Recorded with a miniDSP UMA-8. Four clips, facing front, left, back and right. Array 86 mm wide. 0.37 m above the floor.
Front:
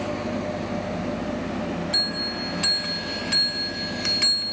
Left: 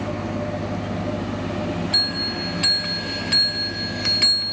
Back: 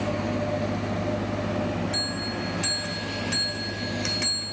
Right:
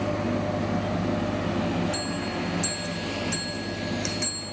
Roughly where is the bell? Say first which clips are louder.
Left 1 dB, even; left.